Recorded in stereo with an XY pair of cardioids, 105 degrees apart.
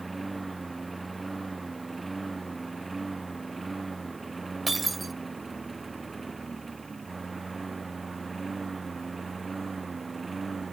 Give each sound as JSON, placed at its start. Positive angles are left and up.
{"t": 0.0, "sound": "a lawn mower", "azimuth_deg": -20}
{"t": 4.7, "sound": "breaking glass", "azimuth_deg": -20}